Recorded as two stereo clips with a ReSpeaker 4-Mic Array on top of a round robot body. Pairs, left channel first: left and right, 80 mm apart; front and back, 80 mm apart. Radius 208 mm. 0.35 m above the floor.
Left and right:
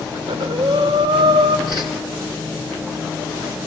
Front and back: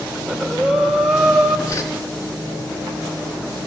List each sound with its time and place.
0.1 s breathing: 95° right, 1.9 m
1.7 s a whoosh: 55° right, 3 m